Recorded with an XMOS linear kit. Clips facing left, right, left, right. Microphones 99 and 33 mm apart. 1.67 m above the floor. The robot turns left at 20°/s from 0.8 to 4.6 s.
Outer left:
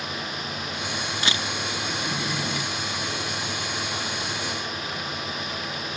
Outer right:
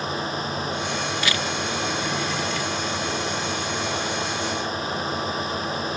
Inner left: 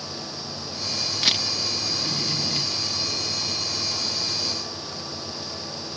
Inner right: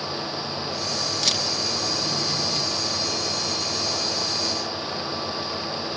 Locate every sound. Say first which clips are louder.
1.2 s a camera shutter: outer left 1 dB, inner left 3 dB; 30° left (ahead or behind); by 1.4 s 25° left (ahead or behind)